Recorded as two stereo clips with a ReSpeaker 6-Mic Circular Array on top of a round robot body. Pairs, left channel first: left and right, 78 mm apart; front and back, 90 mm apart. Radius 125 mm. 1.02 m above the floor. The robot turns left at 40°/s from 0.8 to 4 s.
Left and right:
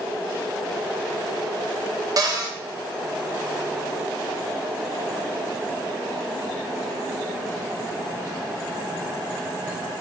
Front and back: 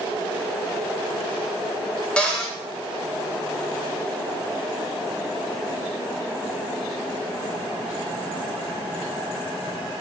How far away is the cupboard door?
About 0.8 m.